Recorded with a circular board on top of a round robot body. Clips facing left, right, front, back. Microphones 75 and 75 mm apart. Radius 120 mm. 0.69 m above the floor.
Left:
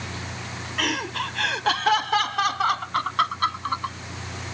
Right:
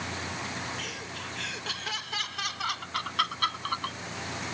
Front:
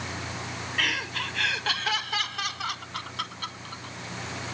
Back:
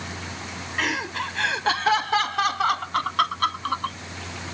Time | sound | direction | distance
0.8 | laughter | 115° left | ?